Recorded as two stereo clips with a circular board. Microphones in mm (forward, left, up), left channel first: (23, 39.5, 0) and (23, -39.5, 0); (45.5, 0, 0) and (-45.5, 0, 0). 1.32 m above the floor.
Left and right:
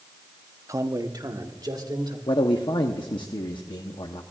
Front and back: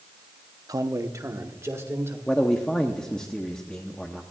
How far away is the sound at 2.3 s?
About 0.8 m.